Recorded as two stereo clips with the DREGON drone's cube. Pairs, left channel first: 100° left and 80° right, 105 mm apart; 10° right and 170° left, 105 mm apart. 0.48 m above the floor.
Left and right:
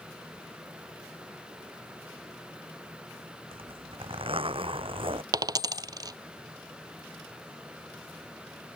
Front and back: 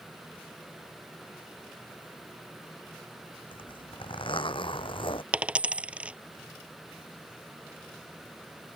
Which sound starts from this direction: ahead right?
A zipper, at 3.5 s.